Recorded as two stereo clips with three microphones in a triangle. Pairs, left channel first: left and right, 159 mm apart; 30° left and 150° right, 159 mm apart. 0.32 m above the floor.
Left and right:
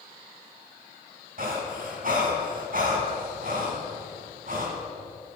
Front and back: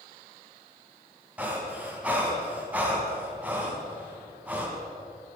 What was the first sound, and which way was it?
Breathing, 70° right.